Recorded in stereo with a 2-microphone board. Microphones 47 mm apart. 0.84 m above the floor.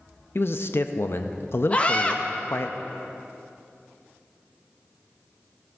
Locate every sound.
0.3 s a man speaking: 55° left (ahead or behind), 0.6 m
1.7 s a scream: 25° left (ahead or behind), 1.2 m